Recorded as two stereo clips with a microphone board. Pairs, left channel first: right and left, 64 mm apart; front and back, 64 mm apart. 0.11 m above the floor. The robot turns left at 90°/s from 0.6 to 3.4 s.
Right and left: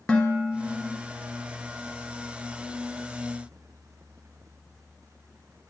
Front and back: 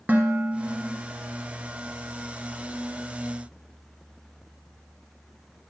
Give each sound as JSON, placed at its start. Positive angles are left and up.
{"t": 0.1, "sound": "dishes clattering", "azimuth_deg": -155, "distance_m": 1.2}